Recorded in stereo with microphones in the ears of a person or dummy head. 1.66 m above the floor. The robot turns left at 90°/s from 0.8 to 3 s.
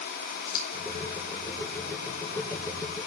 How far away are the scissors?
About 5.5 m.